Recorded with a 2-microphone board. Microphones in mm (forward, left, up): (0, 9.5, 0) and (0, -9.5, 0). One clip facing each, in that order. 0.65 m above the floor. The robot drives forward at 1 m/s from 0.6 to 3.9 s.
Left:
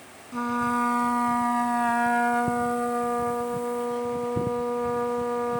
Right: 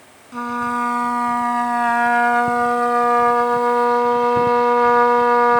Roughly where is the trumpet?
Right.